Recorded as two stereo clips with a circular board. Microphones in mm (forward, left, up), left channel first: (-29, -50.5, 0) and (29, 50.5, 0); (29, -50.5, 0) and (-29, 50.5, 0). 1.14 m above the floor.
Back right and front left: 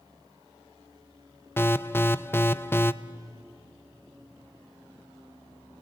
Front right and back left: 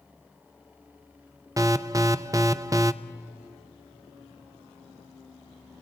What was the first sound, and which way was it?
An alarm, 175° left.